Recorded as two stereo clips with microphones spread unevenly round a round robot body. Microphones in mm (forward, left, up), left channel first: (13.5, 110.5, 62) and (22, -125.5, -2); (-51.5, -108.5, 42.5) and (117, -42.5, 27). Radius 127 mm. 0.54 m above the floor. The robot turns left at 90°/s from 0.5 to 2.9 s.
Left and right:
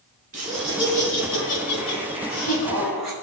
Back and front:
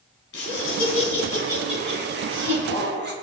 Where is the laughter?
145° right, 4.5 m; by 3.1 s straight ahead, 4.5 m.